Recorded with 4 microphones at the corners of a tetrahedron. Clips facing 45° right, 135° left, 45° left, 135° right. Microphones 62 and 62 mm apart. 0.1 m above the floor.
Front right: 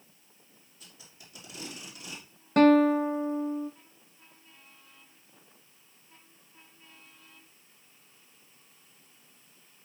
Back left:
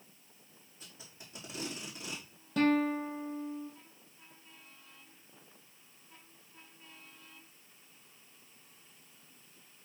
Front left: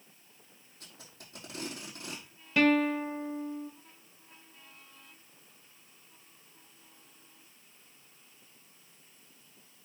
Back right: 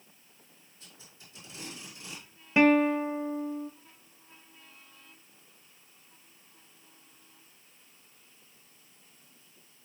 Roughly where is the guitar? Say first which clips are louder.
Front right 9 dB, back right 3 dB; right.